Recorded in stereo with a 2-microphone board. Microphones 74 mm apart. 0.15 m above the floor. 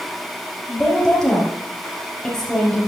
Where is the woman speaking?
10° left (ahead or behind), 3.5 m.